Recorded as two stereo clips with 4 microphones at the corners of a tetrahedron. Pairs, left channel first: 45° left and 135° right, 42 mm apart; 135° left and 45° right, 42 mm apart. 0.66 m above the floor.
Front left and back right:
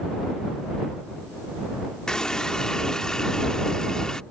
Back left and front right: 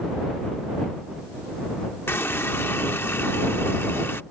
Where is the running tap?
120° left.